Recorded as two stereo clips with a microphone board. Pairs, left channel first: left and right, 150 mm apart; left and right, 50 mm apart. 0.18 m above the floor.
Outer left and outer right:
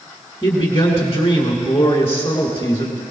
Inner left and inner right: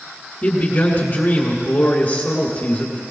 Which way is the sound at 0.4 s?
20° left (ahead or behind).